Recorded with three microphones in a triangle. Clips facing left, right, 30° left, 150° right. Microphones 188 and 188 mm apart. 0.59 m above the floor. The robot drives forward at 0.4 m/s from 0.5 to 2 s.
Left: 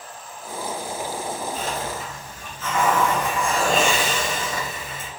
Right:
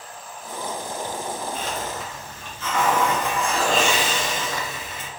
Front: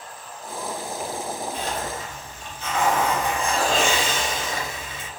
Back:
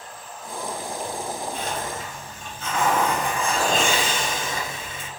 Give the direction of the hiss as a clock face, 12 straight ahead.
6 o'clock.